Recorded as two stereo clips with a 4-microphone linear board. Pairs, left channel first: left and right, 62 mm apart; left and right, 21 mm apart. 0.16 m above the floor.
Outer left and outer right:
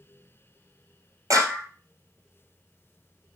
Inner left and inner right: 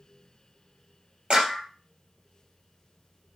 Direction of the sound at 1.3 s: 65° right (ahead or behind).